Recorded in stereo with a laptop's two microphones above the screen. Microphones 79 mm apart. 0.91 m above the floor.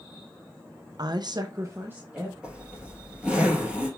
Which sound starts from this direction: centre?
A zipper, at 2.4 s.